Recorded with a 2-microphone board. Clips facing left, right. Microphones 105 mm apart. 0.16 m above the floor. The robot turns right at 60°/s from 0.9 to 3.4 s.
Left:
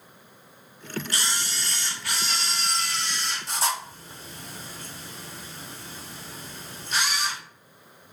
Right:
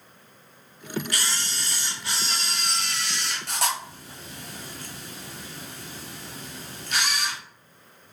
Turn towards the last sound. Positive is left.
turn(degrees=-70)  # may be behind; listen again after turning